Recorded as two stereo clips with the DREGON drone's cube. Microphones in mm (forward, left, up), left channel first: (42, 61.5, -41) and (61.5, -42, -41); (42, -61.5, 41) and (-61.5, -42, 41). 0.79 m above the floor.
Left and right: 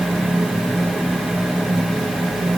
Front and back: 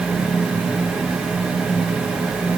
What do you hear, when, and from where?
Only background noise.